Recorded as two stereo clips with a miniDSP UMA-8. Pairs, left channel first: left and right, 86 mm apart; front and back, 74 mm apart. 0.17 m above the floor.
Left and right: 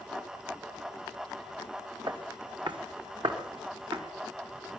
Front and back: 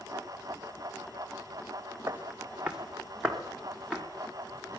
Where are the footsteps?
115° right, 4 m; by 4.0 s 80° right, 5.5 m.